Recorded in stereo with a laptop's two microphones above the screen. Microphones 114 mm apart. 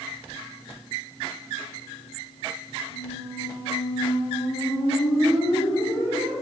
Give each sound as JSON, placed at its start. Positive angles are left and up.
{"t": 2.9, "sound": "a squeak", "side_deg": 70, "distance_m": 3.0}